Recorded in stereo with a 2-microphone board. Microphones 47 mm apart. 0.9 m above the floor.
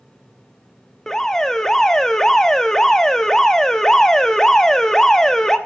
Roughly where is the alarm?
Centre.